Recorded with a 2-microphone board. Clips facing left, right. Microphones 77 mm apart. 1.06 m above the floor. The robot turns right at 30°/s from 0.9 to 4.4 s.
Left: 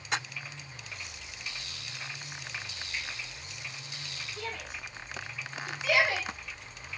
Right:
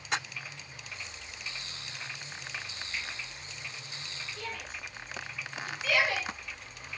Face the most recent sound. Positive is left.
turn(degrees=15)  # may be behind; listen again after turning